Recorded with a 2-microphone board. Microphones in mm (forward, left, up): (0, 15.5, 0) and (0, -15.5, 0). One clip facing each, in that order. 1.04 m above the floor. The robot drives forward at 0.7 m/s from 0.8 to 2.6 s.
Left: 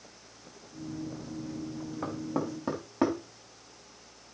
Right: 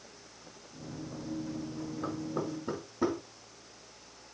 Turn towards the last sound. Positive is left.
turn(degrees=65)  # may be behind; listen again after turning